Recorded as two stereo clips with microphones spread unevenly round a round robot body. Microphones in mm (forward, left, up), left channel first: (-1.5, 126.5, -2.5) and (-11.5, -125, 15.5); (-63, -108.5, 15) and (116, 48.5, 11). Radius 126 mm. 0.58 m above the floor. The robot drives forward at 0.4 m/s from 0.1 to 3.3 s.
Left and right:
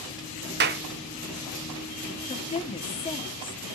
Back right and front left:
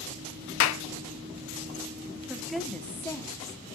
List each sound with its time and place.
0.6 s a clap: 140° right, 0.8 m; by 0.8 s 145° right, 0.9 m
2.3 s a woman speaking: 120° left, 0.9 m; by 3.6 s 145° left, 1.1 m